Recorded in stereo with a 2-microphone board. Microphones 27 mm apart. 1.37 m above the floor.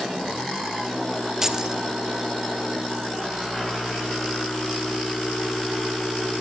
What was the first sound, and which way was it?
Keys jangling, 15° right (ahead or behind).